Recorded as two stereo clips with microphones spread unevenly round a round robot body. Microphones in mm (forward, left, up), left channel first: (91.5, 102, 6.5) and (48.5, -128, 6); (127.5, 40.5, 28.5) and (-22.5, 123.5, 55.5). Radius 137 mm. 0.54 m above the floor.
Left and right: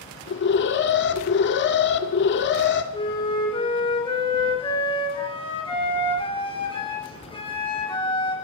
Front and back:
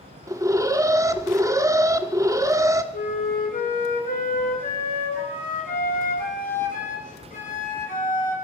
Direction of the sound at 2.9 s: 10° left.